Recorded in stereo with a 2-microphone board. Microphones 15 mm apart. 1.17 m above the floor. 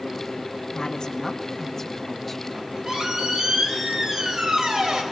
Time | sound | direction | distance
0.7 | a woman speaking | 55° left (ahead or behind) | 1.4 m
2.5 | a squeak | 60° right (ahead or behind) | 3.5 m